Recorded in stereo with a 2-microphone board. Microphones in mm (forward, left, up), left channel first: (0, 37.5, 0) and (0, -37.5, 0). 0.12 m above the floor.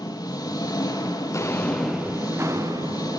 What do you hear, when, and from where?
0.0 s an engine running: 60° left (ahead or behind), 2.5 m
1.3 s footsteps: 45° left (ahead or behind), 0.8 m; by 3.2 s 60° right (ahead or behind), 1.5 m